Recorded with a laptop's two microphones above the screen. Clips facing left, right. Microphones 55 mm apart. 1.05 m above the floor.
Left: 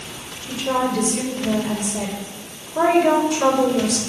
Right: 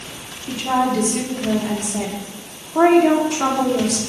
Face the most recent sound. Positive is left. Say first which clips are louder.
# right 2 dB
turn(degrees=-75)  # may be behind; listen again after turning